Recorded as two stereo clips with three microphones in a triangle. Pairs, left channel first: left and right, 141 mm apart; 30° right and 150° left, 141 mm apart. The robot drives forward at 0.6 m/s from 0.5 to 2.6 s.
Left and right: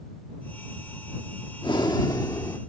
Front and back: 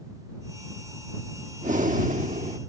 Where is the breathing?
140° left; by 2.6 s 155° left.